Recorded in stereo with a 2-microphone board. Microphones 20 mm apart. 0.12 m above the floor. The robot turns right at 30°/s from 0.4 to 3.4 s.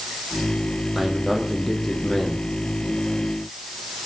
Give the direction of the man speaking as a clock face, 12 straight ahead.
1 o'clock.